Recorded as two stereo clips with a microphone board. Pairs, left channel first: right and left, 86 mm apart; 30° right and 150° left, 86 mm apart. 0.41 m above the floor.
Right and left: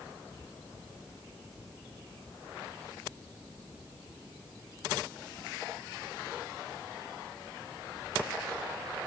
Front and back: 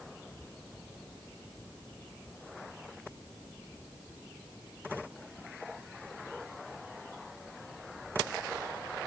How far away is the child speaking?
I don't hear a child speaking.